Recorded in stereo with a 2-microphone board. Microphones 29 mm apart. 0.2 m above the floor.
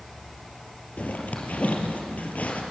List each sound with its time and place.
1.0 s a zipper: 50° left (ahead or behind), 3 m